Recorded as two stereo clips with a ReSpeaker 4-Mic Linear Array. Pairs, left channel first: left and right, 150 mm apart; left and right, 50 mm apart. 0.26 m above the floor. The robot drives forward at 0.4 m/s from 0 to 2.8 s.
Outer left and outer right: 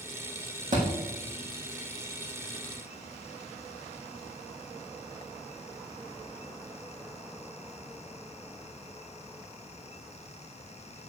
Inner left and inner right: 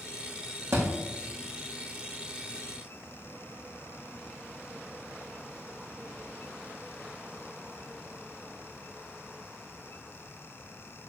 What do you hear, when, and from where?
0.7 s a thud: 60° right (ahead or behind), 4 m